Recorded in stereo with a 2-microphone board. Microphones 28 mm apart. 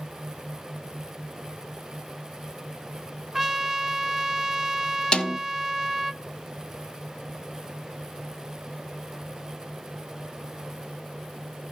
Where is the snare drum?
35° left (ahead or behind), 0.9 m.